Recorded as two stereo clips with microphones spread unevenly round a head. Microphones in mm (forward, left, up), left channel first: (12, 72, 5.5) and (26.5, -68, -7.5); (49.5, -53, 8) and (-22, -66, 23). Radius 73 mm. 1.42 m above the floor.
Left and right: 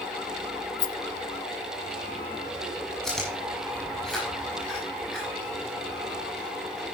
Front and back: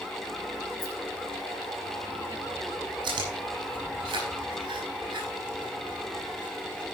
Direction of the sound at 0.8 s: 75° left.